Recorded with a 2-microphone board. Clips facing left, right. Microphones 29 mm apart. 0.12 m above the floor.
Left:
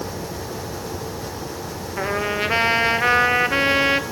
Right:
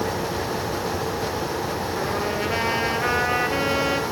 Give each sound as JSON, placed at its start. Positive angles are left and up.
{"t": 2.0, "sound": "a trumpet", "side_deg": 35, "distance_m": 1.3}